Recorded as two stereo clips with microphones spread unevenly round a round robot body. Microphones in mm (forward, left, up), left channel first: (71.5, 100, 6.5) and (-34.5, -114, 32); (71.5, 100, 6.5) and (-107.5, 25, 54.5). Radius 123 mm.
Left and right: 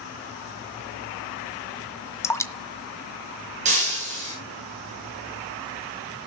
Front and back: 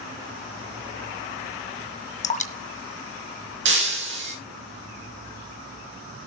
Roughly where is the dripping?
Ahead.